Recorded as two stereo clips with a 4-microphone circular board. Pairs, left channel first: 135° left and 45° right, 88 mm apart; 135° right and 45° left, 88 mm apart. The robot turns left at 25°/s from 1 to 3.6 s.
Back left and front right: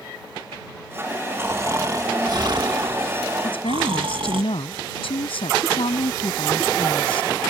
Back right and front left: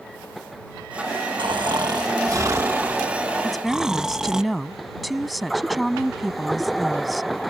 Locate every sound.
1.4 s snoring: 20° left; by 4.4 s 40° right
3.4 s a woman speaking: 140° left; by 7.3 s 135° left